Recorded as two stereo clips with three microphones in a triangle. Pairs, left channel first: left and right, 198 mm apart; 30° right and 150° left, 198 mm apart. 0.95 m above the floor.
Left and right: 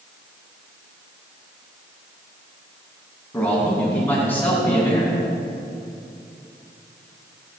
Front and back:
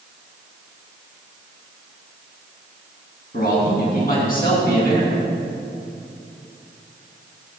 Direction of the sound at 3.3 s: 10° left.